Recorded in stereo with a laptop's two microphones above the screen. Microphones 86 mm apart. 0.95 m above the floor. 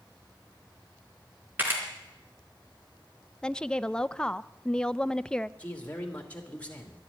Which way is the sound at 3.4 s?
10° left (ahead or behind).